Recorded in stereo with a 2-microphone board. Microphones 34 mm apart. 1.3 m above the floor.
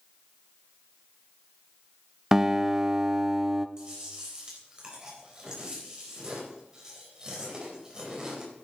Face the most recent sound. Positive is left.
turn(degrees=-20)  # may be behind; listen again after turning